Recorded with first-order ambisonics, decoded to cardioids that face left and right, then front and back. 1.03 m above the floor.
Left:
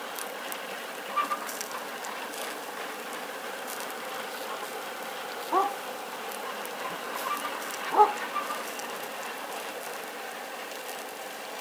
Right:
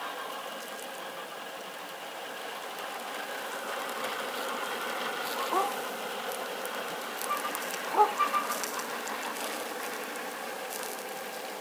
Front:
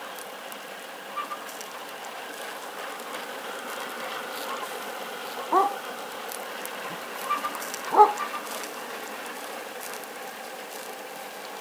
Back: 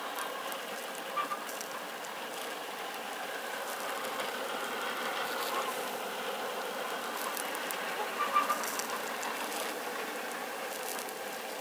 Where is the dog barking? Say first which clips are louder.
Left 5 dB, front 10 dB; 15° left.